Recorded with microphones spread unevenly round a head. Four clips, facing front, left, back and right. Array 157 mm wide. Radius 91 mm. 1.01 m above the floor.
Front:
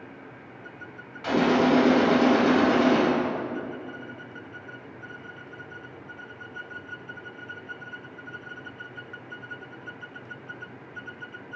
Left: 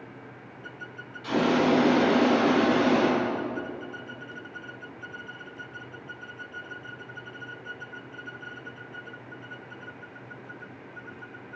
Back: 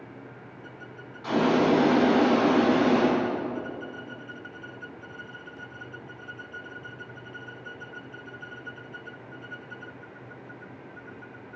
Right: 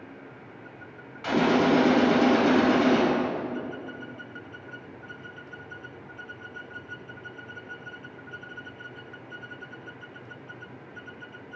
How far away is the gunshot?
About 4 m.